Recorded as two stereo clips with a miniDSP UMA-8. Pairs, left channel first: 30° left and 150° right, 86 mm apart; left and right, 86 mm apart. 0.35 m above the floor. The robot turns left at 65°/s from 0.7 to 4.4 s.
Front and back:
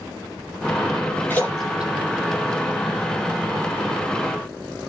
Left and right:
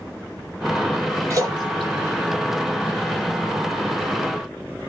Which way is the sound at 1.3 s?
35° right.